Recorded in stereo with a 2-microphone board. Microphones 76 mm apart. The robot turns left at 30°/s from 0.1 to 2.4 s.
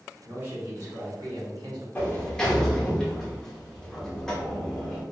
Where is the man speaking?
30° right, 1.0 m; by 1.9 s 75° right, 1.0 m.